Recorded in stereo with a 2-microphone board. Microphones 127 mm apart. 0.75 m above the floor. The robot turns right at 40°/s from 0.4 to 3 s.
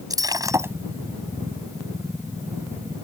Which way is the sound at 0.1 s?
30° right (ahead or behind).